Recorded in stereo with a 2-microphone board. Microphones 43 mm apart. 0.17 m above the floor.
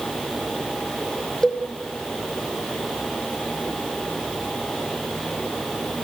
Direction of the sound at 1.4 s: 15° left (ahead or behind).